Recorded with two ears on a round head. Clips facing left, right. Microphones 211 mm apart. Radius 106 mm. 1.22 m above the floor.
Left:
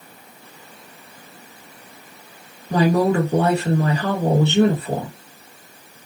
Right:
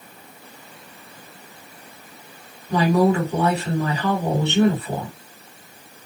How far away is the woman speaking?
About 2.0 m.